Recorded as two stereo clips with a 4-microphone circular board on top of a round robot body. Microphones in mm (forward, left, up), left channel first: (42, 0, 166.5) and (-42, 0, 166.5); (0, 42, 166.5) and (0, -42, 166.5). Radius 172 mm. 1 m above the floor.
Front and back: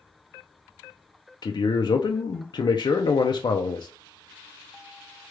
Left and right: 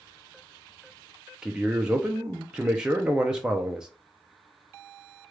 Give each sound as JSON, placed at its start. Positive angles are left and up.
{"t": 1.4, "sound": "a man speaking", "azimuth_deg": -10, "distance_m": 0.6}